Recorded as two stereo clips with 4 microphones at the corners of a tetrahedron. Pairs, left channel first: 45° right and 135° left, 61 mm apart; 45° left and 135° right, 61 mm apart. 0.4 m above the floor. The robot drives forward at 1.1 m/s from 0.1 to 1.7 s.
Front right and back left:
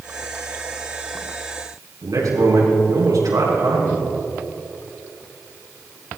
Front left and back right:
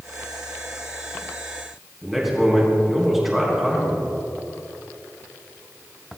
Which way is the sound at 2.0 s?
140° left.